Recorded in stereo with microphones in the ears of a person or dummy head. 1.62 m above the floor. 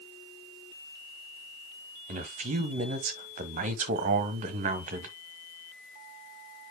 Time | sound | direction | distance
2.1 | a man speaking | 35° right (ahead or behind) | 1.4 m